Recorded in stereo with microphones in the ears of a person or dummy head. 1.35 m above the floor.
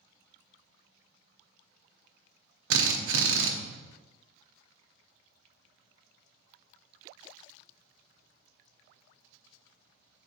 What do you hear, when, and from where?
2.7 s a drill: 75° right (ahead or behind), 0.6 m